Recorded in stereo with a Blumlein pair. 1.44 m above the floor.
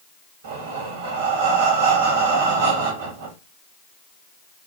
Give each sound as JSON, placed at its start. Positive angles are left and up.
{"t": 0.4, "sound": "breathing", "azimuth_deg": -60, "distance_m": 1.1}